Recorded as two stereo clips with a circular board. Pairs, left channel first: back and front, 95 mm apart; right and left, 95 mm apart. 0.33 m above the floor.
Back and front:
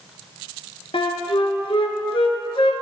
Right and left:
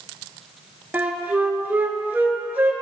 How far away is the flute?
About 0.8 m.